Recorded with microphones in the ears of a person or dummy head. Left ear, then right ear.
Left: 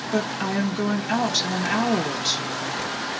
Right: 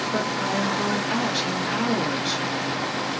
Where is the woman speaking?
75° left (ahead or behind), 0.7 m.